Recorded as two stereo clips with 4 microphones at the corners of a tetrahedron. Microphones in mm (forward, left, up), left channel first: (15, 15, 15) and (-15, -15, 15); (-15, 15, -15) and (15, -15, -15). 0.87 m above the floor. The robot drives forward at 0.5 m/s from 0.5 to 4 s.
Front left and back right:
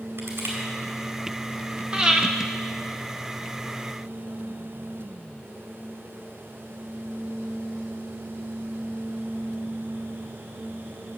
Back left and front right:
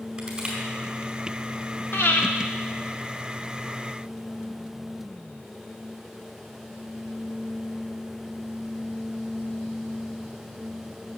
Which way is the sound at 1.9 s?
160° left.